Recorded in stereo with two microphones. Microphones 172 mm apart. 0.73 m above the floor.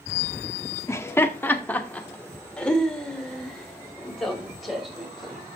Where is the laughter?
15° left (ahead or behind), 1.2 m; by 5.4 s centre (ahead or behind), 3.5 m.